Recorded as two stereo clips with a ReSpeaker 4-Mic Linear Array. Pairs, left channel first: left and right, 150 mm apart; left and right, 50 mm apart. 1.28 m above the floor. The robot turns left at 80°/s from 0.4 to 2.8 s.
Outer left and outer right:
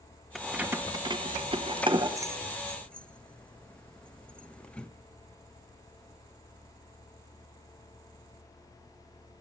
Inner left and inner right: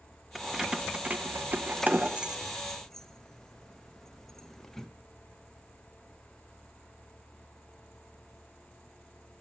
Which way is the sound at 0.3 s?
Centre (ahead or behind).